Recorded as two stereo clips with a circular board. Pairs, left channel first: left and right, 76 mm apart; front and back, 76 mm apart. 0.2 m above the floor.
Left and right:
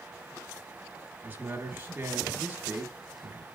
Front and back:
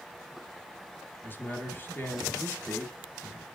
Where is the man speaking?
40° right, 1.3 m.